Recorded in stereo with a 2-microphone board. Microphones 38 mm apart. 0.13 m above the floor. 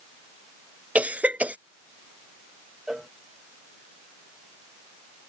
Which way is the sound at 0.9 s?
40° right (ahead or behind).